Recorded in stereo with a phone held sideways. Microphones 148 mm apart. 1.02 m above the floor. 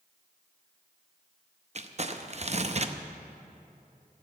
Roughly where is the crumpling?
Right.